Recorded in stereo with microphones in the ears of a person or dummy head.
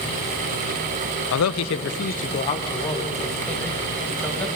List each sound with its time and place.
1.3 s a man speaking: 80° left, 0.8 m; by 4.5 s 5° left (ahead or behind), 3 m